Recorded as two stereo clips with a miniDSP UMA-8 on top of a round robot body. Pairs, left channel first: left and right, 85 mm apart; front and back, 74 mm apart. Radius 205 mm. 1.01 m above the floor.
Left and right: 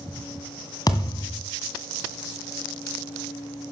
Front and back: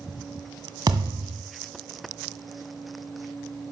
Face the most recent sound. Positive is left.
turn(degrees=135)